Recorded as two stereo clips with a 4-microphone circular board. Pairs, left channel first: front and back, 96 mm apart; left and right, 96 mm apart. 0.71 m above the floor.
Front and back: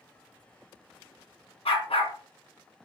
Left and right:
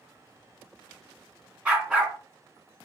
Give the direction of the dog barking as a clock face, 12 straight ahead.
12 o'clock.